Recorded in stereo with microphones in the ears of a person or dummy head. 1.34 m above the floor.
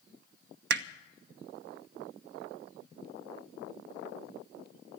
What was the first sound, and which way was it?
Hammering, 60° right (ahead or behind).